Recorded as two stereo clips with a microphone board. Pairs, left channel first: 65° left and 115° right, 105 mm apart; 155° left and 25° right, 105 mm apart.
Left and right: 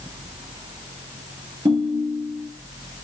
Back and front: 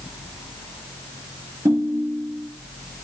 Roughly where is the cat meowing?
No cat meowing in this recording.